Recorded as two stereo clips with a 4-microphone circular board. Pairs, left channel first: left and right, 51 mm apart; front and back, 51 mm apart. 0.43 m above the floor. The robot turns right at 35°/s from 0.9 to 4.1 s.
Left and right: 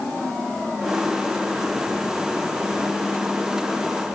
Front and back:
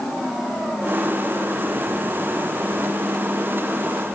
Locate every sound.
Only background noise.